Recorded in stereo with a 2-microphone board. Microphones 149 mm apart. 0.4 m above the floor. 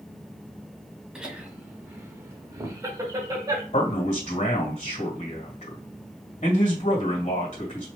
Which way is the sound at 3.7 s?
55° left (ahead or behind).